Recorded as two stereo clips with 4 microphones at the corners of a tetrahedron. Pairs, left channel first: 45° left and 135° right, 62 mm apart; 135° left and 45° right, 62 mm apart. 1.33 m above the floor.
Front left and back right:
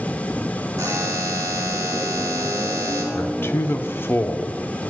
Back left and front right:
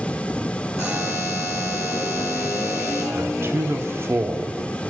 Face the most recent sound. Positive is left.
turn(degrees=-5)